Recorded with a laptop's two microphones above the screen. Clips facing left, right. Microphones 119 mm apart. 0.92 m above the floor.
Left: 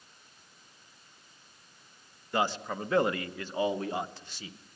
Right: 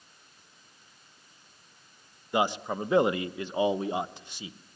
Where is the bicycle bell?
I don't hear a bicycle bell.